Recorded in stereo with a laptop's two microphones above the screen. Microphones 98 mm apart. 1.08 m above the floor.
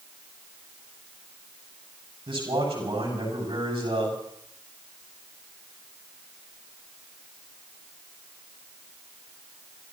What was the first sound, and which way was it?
A man speaking, 55° right (ahead or behind).